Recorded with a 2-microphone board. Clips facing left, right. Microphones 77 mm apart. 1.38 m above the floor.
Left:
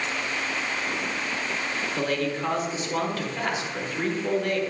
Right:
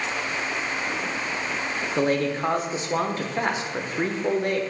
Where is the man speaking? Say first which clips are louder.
Right 5 dB; 30° right (ahead or behind), 0.6 m.